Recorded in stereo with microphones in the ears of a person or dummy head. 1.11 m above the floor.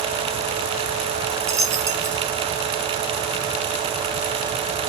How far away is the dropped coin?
About 0.6 m.